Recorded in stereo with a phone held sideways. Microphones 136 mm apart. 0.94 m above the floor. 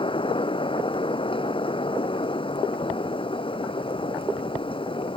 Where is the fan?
40° left (ahead or behind).